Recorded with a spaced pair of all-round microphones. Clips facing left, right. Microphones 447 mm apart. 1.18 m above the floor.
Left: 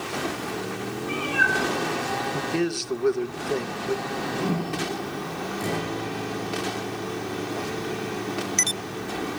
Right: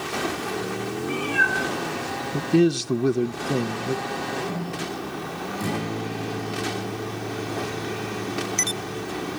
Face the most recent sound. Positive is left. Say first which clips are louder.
# right 2 dB
turn(degrees=-25)  # may be behind; listen again after turning